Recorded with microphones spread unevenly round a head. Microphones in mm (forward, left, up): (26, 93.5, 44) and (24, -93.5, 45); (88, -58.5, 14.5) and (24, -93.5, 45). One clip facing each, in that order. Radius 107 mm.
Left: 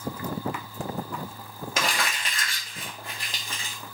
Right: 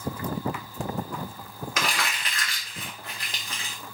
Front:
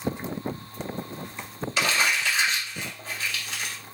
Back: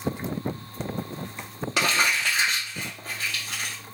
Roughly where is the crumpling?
Behind left.